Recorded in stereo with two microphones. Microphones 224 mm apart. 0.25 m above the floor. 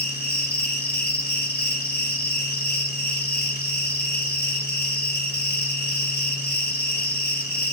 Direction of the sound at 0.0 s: 45° left (ahead or behind).